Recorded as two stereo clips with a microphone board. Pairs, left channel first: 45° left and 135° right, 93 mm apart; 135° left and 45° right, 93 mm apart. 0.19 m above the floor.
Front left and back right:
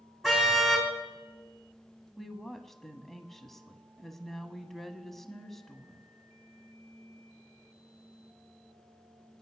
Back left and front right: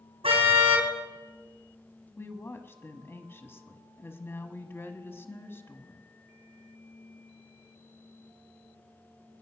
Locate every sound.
0.2 s a car horn: 50° right, 4.5 m
2.2 s a woman speaking: 125° left, 1.2 m